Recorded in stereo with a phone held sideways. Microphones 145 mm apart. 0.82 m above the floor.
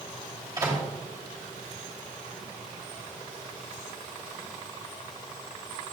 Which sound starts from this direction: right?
A microwave, at 0.6 s.